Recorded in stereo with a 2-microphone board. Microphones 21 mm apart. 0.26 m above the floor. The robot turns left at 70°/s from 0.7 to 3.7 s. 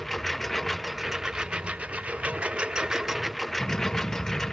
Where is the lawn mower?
10° left; by 4.5 s 160° left.